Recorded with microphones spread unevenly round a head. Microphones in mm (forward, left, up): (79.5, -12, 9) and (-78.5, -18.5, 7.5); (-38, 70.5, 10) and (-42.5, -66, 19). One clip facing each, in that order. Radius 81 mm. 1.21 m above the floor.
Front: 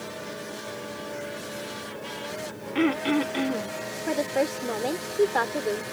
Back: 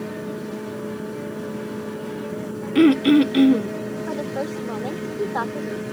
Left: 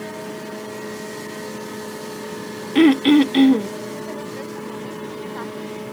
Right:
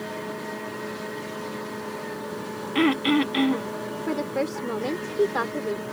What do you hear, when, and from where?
0.0 s a fan: 165° left
2.8 s throat clearing: 135° left
4.1 s a woman speaking: 65° right